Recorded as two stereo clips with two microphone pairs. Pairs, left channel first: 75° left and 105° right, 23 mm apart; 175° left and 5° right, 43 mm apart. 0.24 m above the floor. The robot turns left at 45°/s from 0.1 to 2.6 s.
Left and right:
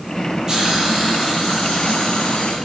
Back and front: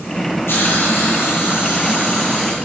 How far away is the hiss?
About 7 m.